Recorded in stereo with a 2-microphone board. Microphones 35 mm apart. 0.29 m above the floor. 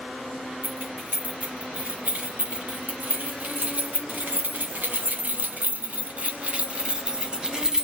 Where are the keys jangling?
50° right (ahead or behind), 4.5 m; by 7.8 s 15° right (ahead or behind), 1.9 m.